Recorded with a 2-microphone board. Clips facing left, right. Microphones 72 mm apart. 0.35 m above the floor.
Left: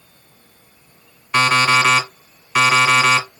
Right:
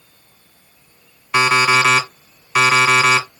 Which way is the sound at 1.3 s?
5° right (ahead or behind).